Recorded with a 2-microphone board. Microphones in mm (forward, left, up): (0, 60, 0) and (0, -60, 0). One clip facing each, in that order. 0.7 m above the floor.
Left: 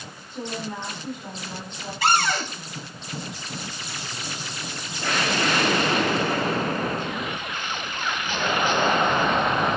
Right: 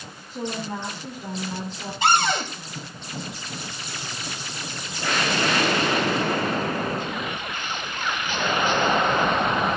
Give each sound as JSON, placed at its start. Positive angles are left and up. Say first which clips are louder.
{"t": 0.3, "sound": "a woman speaking", "louder": "right 2 dB", "side_deg": -30, "distance_m": 10.0}
{"t": 2.0, "sound": "a cupboard door", "louder": "right 1 dB", "side_deg": -20, "distance_m": 3.0}